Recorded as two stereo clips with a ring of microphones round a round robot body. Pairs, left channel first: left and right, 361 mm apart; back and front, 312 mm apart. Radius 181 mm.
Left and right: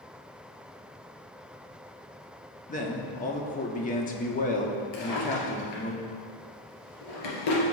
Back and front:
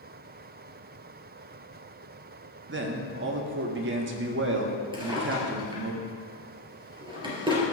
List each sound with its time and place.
2.7 s a man speaking: 30° left, 1.1 m
4.9 s a drawer: 75° left, 3 m